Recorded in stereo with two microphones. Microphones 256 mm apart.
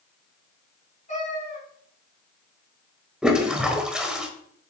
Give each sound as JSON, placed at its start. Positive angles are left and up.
{"t": 1.1, "sound": "a cat meowing", "side_deg": 30, "distance_m": 5.0}
{"t": 3.2, "sound": "a toilet flushing", "side_deg": -5, "distance_m": 1.2}